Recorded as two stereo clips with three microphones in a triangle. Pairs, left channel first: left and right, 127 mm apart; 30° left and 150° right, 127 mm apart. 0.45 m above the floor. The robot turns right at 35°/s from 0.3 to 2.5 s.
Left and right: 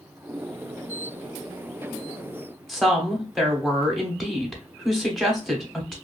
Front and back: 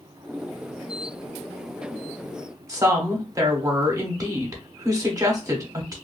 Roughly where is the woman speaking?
Behind.